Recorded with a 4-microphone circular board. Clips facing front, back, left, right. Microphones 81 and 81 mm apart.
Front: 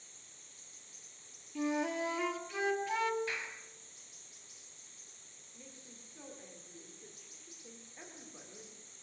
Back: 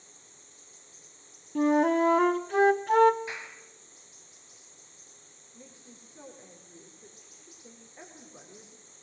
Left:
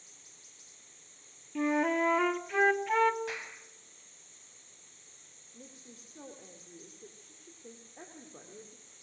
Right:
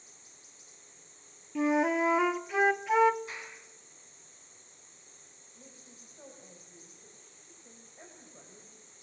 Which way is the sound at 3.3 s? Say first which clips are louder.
Back 1 dB, left 3 dB; 110° left.